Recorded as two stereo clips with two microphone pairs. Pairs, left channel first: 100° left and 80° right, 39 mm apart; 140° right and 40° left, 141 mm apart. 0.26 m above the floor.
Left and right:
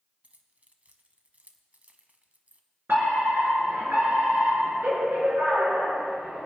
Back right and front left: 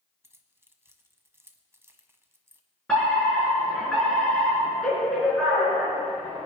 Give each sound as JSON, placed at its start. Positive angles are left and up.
{"t": 0.2, "sound": "keys jangling", "azimuth_deg": -30, "distance_m": 1.2}
{"t": 2.9, "sound": "a fire alarm", "azimuth_deg": -60, "distance_m": 5.5}